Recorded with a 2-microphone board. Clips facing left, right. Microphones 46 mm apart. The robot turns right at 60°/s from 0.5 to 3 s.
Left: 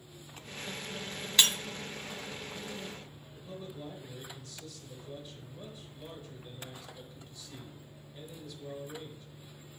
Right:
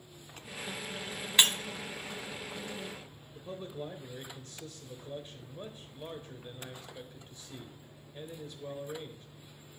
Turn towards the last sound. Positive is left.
turn(degrees=-35)  # may be behind; listen again after turning